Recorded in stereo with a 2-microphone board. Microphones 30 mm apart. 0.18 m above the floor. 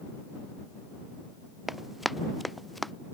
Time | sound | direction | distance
1.7 | running footsteps | 5° right (ahead or behind) | ?